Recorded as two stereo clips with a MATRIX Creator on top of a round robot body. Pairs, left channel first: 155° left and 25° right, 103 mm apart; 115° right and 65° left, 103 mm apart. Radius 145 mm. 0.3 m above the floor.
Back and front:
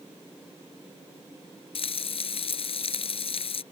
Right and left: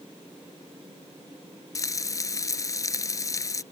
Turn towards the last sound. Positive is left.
turn(degrees=-170)